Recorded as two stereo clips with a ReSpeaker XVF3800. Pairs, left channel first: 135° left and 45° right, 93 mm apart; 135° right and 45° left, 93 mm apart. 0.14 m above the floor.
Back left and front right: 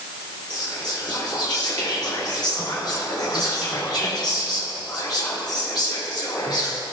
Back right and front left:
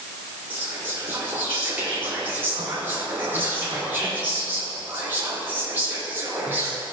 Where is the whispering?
110° left, 2 m.